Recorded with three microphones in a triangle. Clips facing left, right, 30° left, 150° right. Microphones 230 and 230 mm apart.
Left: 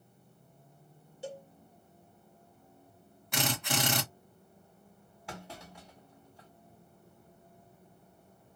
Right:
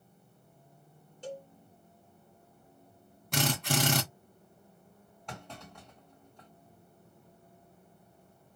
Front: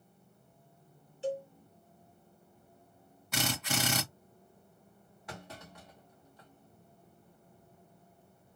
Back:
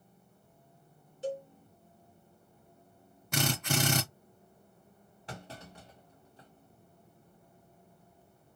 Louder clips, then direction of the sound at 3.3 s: Right 3 dB, back 3 dB; 125° right.